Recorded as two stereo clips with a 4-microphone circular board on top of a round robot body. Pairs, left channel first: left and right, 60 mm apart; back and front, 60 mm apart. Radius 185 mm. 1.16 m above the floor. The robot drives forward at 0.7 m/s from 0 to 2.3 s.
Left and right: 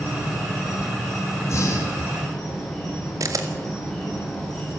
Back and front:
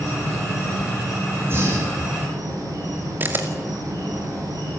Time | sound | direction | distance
0.0 | an insect | 5° left | 10 m
1.4 | breathing | 50° left | 6 m
3.2 | a camera shutter | 55° right | 2 m